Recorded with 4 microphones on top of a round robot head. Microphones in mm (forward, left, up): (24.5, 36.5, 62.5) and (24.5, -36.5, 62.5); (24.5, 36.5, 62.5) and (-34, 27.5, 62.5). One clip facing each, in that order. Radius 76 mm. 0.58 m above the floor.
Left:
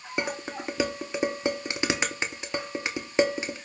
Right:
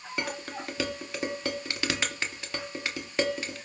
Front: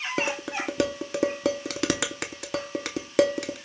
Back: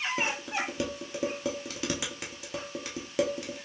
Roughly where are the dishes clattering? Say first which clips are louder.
Left 4 dB, front 3 dB; ahead.